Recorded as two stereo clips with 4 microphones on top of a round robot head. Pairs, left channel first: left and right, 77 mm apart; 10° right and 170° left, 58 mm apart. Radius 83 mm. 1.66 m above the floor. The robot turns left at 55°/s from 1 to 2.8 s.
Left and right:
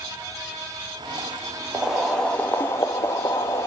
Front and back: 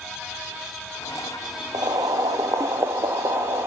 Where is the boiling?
165° right, 1.4 m; by 3.7 s 135° left, 1.4 m.